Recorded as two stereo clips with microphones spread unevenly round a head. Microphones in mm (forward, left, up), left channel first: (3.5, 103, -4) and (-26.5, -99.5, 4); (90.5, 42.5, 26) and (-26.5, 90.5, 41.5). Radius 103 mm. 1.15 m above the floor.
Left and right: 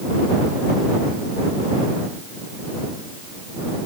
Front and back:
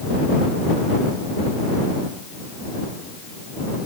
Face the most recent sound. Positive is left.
No sound to turn to.